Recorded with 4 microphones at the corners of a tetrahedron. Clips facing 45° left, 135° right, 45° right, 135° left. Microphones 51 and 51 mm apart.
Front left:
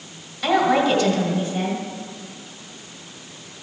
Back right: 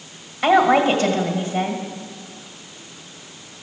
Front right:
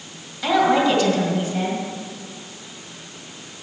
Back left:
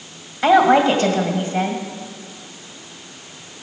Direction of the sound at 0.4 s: Straight behind.